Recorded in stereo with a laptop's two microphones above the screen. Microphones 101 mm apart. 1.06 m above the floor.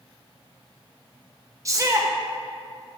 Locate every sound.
1.6 s a shout: 30° right (ahead or behind), 0.9 m